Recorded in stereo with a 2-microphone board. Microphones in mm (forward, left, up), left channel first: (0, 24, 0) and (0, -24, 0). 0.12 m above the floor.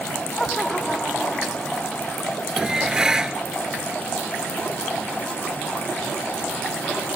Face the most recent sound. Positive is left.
turn(degrees=-15)  # may be behind; listen again after turning